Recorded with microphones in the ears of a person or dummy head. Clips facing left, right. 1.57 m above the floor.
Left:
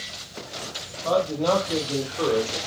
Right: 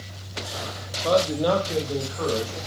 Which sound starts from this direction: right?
A man speaking, at 1.0 s.